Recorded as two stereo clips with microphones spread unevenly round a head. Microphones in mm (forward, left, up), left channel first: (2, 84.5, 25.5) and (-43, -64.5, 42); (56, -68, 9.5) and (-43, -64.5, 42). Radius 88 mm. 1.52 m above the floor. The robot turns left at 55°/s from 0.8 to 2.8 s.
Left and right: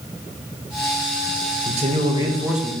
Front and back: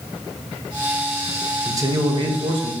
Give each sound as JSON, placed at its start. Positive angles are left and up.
{"t": 1.6, "sound": "a man speaking", "azimuth_deg": -140, "distance_m": 0.6}